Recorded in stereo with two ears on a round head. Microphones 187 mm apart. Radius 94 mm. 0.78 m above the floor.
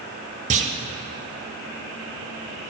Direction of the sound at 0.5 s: 35° right (ahead or behind).